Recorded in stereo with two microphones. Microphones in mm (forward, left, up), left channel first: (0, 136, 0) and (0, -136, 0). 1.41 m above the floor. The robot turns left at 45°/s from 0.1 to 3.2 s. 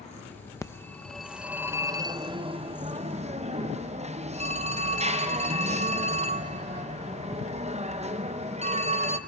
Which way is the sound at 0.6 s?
10° left (ahead or behind).